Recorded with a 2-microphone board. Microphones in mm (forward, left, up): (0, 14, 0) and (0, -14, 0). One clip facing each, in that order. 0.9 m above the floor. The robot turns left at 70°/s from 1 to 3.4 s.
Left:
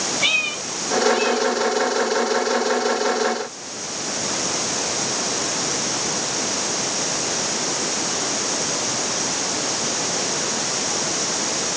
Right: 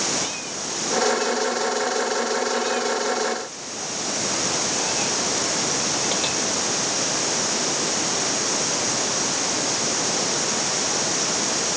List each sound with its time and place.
0.2 s a cat meowing: 65° left (ahead or behind); by 6.4 s 75° right (ahead or behind)